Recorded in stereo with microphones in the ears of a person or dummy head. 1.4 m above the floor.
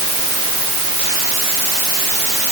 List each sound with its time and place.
Only background noise.